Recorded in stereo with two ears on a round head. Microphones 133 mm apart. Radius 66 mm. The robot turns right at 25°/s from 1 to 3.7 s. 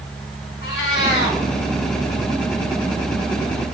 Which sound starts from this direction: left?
A cat meowing, at 0.6 s.